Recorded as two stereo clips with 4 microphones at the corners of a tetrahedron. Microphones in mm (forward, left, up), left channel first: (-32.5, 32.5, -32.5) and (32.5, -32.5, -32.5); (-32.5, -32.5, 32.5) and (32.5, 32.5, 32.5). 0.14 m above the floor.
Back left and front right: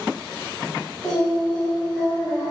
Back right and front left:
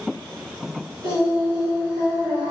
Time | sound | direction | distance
1.0 | singing | 60° left | 1.9 m